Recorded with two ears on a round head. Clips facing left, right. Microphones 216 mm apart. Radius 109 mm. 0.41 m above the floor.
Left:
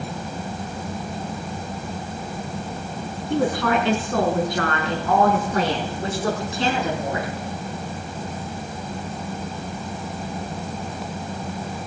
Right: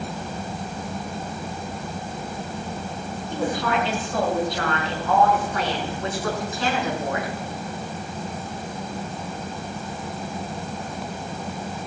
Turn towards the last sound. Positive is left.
turn(degrees=20)  # may be behind; listen again after turning